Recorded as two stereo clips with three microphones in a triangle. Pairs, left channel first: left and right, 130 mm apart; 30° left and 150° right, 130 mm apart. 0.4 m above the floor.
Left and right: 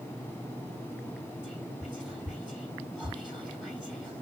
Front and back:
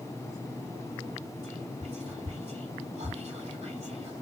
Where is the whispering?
175° left, 4 m.